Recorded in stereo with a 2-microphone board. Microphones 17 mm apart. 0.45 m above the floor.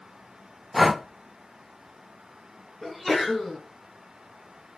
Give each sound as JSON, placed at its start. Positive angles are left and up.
{"t": 0.7, "sound": "breathing", "side_deg": -5, "distance_m": 0.5}
{"t": 2.8, "sound": "a sneeze", "side_deg": -5, "distance_m": 3.5}